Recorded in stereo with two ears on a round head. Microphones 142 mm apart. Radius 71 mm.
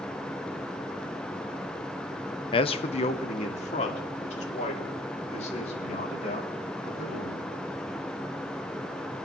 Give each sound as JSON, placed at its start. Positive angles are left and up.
{"t": 2.5, "sound": "a man speaking", "side_deg": 35, "distance_m": 0.7}